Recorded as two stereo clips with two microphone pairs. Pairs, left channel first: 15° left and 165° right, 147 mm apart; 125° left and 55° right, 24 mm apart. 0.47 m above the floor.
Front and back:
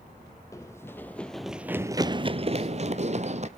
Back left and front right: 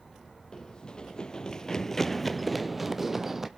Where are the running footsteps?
85° left, 0.9 m; by 3.5 s 130° right, 0.9 m.